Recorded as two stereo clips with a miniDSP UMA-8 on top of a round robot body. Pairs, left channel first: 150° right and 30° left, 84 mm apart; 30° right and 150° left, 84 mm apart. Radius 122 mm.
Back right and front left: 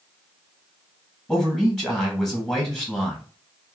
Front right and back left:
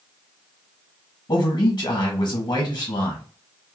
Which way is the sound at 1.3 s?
70° right.